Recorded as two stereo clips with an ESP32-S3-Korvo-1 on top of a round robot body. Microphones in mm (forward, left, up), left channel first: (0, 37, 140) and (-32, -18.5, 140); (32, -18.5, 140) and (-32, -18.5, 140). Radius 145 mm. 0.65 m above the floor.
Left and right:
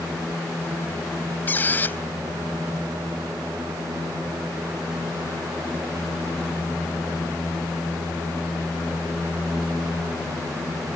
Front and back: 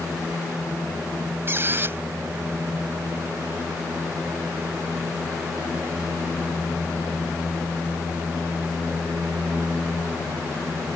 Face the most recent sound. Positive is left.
turn(degrees=125)